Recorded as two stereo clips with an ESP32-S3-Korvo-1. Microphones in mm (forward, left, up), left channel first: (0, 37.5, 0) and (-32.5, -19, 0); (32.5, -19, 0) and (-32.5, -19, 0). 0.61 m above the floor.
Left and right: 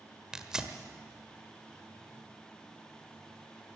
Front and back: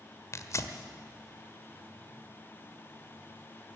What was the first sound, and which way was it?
Tearing paper, 40° right.